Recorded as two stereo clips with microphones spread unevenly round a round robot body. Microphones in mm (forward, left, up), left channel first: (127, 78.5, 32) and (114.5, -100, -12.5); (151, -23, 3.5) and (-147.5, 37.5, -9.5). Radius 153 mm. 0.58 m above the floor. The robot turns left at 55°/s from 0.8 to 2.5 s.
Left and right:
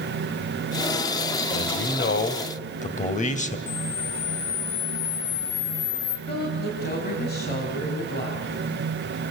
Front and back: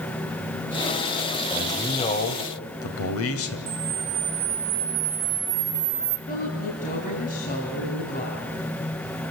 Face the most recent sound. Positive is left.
turn(degrees=50)